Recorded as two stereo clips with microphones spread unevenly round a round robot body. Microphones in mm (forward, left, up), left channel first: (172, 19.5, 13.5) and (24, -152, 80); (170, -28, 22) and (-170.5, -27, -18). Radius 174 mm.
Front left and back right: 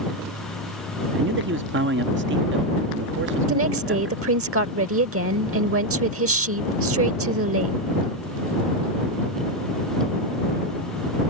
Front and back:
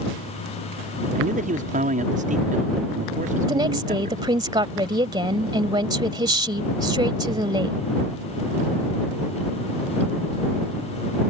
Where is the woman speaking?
105° right.